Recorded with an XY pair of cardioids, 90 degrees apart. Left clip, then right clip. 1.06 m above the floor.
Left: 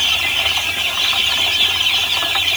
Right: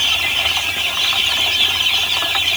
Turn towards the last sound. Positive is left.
No sound to turn to.